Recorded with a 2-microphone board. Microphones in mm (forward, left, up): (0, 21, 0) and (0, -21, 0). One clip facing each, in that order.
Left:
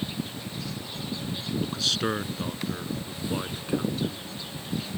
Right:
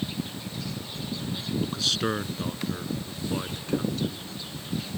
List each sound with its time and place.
1.6 s a man speaking: centre (ahead or behind); by 4.2 s 10° left (ahead or behind)